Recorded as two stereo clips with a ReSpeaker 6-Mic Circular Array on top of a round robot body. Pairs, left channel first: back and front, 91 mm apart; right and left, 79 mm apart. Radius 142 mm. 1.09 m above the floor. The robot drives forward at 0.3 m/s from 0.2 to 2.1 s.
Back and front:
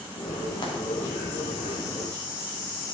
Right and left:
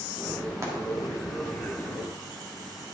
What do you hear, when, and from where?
0.6 s frying: 145° left, 2 m